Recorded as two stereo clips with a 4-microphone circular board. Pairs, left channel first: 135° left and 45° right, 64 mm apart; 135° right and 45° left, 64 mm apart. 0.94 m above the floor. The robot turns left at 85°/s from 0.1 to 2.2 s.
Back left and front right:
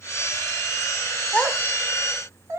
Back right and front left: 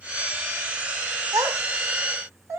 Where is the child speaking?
70° left, 1.6 m; by 2.6 s straight ahead, 1.6 m.